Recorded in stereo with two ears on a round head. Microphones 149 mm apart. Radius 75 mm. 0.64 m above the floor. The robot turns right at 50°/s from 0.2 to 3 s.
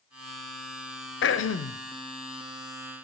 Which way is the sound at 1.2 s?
75° left (ahead or behind).